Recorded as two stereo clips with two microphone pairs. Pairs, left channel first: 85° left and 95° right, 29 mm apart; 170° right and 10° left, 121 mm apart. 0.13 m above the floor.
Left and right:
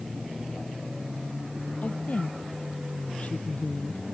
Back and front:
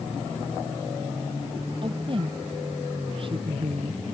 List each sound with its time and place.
1.8 s a woman speaking: 55° left